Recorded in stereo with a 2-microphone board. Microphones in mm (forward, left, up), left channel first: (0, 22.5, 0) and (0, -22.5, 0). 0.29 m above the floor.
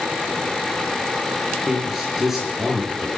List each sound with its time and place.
1.7 s a man speaking: 10° right (ahead or behind), 6 m